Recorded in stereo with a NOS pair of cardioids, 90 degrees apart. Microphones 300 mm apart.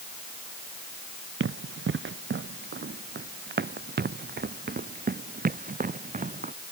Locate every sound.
1.4 s running footsteps: 40° right; by 6.5 s 25° right